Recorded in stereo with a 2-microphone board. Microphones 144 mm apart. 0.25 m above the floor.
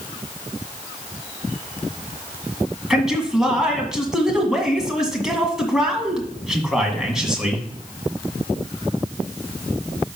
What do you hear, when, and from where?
2.9 s a man speaking: 5° right (ahead or behind), 1.8 m